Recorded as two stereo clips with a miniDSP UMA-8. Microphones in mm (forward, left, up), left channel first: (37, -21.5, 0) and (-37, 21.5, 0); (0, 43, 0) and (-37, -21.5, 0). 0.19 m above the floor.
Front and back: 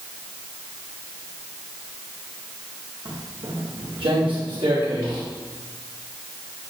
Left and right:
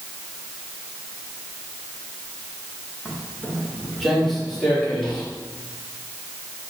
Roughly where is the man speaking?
No man speaking in this recording.